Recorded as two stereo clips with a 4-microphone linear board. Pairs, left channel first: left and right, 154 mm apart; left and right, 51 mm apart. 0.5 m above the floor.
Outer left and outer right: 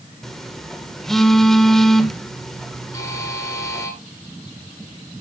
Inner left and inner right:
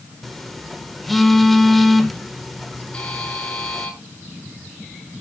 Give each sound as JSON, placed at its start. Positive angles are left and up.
{"t": 0.2, "sound": "a phone buzzing", "side_deg": 0, "distance_m": 1.4}
{"t": 2.9, "sound": "a buzzer", "side_deg": 20, "distance_m": 8.5}